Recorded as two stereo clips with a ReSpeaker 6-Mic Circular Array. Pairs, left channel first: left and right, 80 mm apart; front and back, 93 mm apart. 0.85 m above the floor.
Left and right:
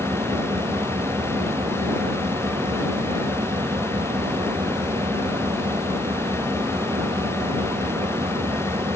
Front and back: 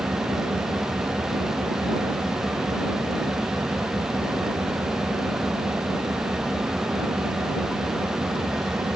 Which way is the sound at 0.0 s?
110° right.